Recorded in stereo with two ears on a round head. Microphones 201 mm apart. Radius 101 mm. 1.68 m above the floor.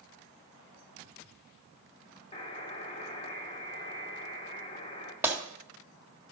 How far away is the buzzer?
About 1.6 m.